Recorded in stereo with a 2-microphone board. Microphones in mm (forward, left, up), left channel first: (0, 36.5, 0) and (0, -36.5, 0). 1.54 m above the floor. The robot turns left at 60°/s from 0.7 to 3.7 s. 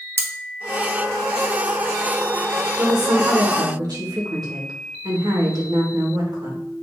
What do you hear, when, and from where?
0.2 s cutlery clinking: 35° right (ahead or behind), 0.9 m
2.8 s a woman speaking: 65° right, 2 m; by 6.6 s 120° right, 2 m